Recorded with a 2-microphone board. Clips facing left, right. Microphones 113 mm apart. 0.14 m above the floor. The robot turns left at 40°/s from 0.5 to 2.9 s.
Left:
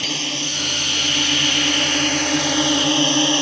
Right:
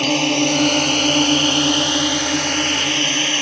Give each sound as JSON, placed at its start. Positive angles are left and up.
{"t": 0.0, "sound": "a drone", "azimuth_deg": -105}